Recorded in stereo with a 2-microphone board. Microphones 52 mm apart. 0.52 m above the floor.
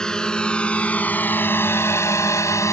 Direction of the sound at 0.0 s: 15° left (ahead or behind).